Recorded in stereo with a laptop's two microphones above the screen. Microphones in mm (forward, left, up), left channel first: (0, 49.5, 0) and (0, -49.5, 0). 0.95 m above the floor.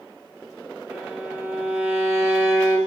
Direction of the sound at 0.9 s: 25° right (ahead or behind).